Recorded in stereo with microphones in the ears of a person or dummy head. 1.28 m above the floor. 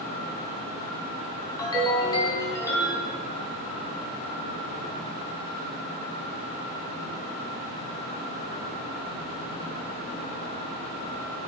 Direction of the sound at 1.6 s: 25° left (ahead or behind).